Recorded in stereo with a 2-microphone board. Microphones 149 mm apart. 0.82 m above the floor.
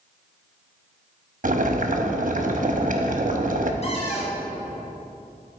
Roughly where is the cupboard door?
Left.